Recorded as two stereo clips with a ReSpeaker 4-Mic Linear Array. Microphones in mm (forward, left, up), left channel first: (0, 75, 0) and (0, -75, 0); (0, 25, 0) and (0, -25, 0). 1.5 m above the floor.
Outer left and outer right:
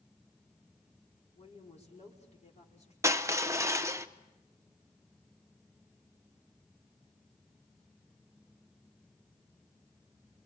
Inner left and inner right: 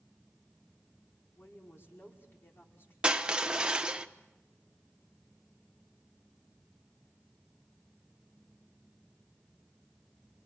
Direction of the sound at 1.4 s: 50° left (ahead or behind).